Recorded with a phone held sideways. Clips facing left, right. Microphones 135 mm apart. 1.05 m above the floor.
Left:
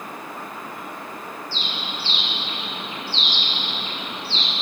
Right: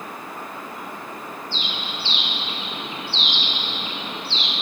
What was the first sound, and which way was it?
A bird, 25° right (ahead or behind).